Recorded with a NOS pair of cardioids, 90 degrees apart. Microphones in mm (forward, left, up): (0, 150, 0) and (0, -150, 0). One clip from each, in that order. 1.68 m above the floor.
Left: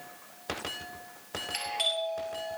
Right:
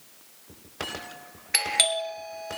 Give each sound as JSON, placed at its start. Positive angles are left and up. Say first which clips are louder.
{"t": 1.5, "sound": "a doorbell", "louder": "right 6 dB", "azimuth_deg": -65, "distance_m": 1.9}